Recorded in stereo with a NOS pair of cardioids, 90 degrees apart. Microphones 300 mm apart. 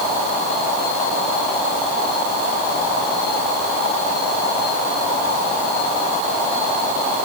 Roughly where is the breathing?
No breathing in this recording.